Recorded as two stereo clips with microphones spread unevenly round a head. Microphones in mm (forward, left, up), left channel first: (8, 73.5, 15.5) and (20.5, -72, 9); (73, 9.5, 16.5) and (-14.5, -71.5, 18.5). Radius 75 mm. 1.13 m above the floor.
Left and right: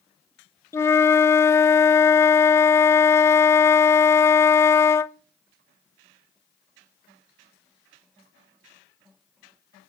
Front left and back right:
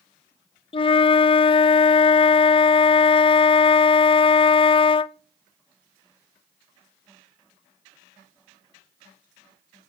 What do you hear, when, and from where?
0.7 s a flute: 25° left, 0.5 m